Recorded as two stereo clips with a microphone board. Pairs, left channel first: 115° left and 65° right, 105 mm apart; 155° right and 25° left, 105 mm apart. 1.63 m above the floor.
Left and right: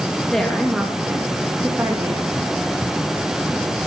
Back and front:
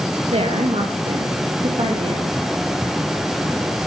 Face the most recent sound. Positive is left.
turn(degrees=-5)